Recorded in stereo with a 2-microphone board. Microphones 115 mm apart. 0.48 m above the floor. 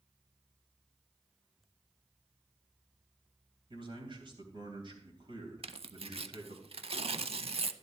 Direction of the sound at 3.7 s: 45° right (ahead or behind).